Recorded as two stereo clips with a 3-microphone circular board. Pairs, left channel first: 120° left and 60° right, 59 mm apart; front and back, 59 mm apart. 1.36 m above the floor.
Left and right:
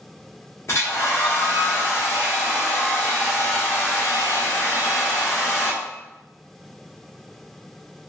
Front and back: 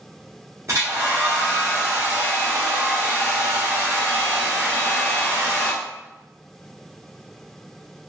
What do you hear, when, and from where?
0.7 s a hair dryer: 160° left, 1.6 m